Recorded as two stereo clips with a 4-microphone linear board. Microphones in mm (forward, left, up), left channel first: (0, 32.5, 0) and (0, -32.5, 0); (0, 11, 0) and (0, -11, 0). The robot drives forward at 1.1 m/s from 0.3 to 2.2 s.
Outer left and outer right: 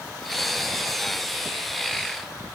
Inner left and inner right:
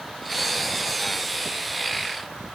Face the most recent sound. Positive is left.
No sound to turn to.